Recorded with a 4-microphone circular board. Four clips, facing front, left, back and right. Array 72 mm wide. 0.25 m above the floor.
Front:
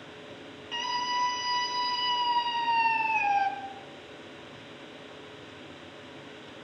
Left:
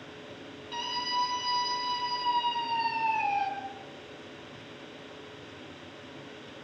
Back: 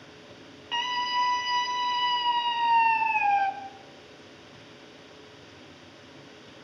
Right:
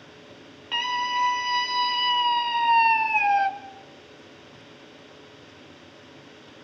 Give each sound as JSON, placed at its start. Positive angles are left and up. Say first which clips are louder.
{"t": 0.7, "sound": "a scream", "louder": "right 7 dB, back 3 dB", "azimuth_deg": -120, "distance_m": 6.5}